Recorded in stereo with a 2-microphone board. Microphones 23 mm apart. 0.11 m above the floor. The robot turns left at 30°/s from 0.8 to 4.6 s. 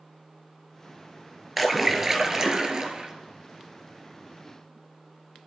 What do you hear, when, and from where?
1.6 s a splash: 10° right, 1.6 m; by 3.1 s 55° right, 1.6 m